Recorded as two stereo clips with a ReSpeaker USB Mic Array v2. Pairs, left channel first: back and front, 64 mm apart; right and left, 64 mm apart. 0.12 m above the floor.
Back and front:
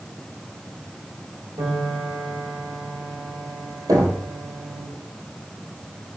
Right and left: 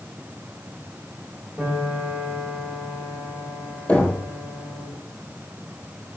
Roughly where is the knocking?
Ahead.